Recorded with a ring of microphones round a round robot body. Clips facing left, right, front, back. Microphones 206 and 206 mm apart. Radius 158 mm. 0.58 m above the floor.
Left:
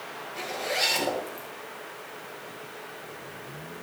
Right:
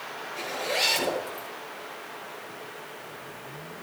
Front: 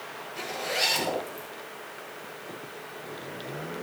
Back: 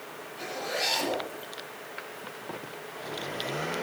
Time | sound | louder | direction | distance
0.4 | a zipper | right 1 dB, front 1 dB | 10° left | 9 m